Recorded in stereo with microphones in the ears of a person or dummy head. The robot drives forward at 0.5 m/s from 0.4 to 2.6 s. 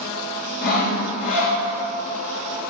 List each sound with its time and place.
0.6 s sawing: 55° left (ahead or behind), 2.5 m; by 1.6 s 50° left (ahead or behind), 3 m